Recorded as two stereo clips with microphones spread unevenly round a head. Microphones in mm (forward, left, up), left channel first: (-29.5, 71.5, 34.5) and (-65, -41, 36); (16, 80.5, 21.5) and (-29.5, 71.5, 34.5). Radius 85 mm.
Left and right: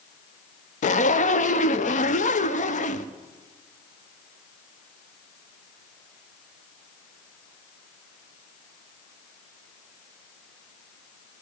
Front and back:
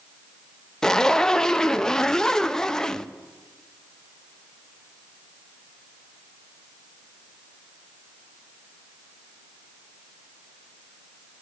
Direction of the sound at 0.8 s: 90° left.